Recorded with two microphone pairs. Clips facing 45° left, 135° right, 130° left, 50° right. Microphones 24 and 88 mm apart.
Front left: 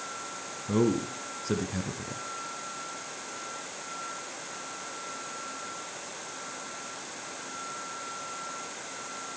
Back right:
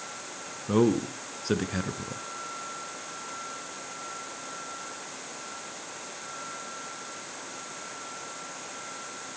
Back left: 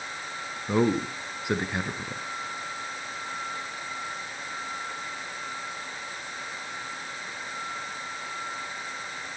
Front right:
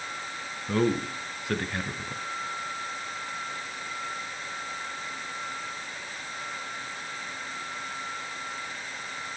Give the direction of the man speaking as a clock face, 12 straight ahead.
6 o'clock.